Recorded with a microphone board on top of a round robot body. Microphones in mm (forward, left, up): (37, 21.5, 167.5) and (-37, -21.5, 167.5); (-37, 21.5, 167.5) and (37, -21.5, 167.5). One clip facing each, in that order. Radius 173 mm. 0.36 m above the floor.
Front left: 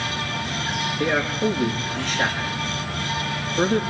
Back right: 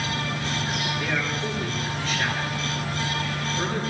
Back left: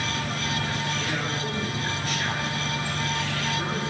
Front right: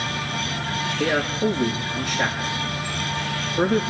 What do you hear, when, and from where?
1.0 s a man speaking: straight ahead, 7.5 m